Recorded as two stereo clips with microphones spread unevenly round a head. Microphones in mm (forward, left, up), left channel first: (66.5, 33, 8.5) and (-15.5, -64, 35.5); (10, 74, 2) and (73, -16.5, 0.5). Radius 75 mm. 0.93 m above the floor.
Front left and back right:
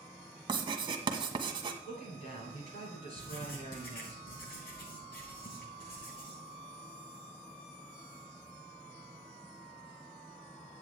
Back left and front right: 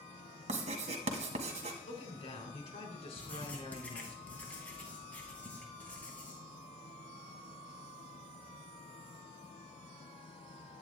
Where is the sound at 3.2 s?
50° left, 3 m.